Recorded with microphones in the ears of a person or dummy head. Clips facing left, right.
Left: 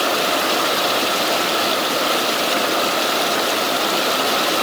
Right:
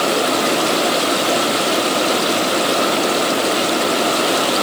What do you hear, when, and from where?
Only background noise.